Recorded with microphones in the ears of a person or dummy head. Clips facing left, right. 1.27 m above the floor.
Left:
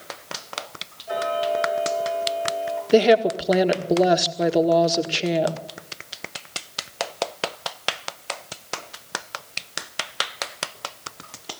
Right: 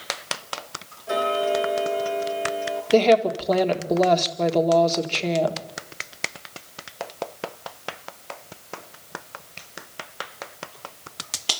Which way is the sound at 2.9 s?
10° left (ahead or behind).